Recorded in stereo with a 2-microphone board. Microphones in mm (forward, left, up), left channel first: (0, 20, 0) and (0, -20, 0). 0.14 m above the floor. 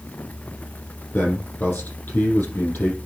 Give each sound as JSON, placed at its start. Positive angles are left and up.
{"t": 1.1, "sound": "a man speaking", "side_deg": 45, "distance_m": 5.5}